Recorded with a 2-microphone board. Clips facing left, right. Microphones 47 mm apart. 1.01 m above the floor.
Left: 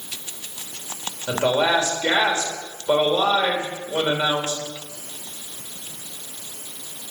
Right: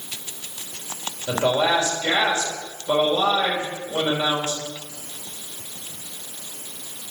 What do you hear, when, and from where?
1.3 s a woman speaking: 30° left (ahead or behind), 3 m